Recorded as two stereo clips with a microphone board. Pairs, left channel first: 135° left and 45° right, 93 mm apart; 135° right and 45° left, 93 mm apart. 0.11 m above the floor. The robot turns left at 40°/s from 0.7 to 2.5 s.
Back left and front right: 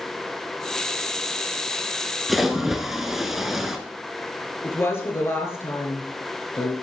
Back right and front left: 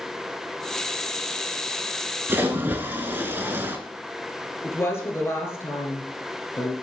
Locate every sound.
2.3 s a splash: 45° left, 0.7 m; by 3.8 s 35° left, 0.7 m
4.6 s a woman speaking: straight behind, 1.5 m